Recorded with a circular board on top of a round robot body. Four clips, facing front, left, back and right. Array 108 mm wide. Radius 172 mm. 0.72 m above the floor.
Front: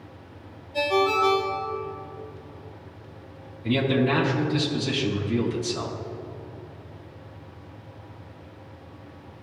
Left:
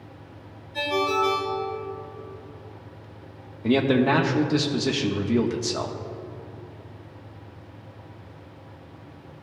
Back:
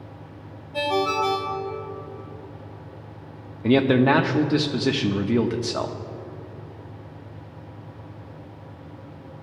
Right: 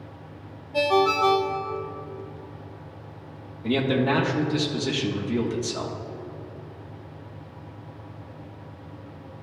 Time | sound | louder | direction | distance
0.7 | a ringtone | right 4 dB, front 1 dB | 100° right | 1.6 m
3.6 | a man speaking | left 3 dB, back 5 dB | 165° left | 1.3 m